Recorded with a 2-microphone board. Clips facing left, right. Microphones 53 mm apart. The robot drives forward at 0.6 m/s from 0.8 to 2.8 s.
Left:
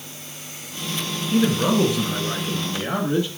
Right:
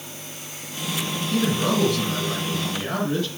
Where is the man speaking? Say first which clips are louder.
Left 3 dB; 20° left (ahead or behind), 1.5 m.